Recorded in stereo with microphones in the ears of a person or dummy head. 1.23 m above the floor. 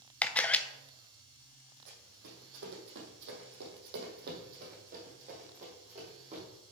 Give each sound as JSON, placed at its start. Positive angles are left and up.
{"t": 0.2, "sound": "a camera shutter", "side_deg": 10, "distance_m": 0.5}
{"t": 1.9, "sound": "running footsteps", "side_deg": -60, "distance_m": 2.5}